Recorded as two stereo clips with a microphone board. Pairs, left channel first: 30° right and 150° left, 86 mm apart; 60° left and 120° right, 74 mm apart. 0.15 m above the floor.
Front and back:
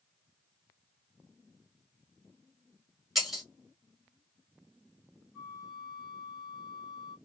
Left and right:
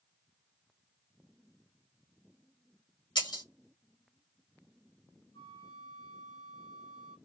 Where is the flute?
65° left, 2 m.